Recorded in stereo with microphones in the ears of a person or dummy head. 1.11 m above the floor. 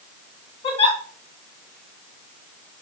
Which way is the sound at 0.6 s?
40° left (ahead or behind).